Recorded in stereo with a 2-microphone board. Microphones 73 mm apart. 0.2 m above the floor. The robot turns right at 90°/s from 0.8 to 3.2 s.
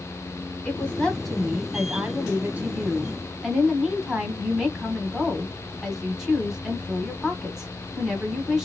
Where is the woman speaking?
20° left (ahead or behind), 1.2 m; by 8.7 s 5° right (ahead or behind), 1.2 m.